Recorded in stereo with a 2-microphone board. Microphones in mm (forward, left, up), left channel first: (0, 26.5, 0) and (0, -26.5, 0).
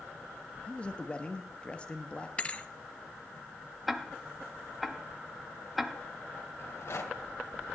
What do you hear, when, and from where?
0.7 s a man speaking: 20° left (ahead or behind), 1.1 m
2.4 s a thud: 25° left (ahead or behind), 0.6 m
3.9 s ticking: 5° right (ahead or behind), 0.9 m
6.6 s a rattle: 60° left (ahead or behind), 1.8 m